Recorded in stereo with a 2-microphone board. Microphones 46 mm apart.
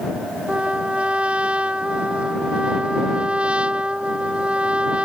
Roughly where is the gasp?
I don't hear a gasp.